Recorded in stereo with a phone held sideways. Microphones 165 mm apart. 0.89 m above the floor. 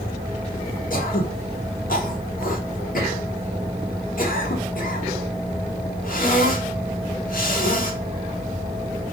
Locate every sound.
0.9 s throat clearing: 60° left (ahead or behind), 0.7 m